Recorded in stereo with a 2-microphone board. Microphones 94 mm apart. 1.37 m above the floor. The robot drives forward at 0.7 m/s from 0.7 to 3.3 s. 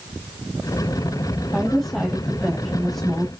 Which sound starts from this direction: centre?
A woman speaking, at 1.5 s.